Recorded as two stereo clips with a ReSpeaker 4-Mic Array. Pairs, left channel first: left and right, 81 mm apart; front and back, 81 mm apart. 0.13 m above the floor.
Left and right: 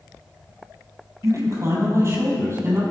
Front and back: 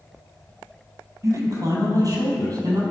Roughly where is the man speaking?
Behind right.